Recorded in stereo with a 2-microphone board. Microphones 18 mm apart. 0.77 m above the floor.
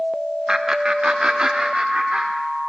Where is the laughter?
40° right (ahead or behind), 0.7 m; by 2.3 s 65° right (ahead or behind), 1.7 m.